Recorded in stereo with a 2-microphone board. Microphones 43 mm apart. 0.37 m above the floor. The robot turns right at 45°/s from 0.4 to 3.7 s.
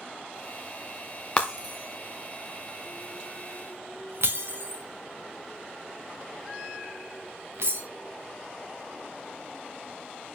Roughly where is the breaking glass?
Left.